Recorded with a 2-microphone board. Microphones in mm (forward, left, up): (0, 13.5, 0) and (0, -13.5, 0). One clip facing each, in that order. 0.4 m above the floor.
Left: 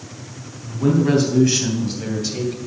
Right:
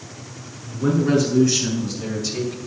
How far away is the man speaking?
About 4 m.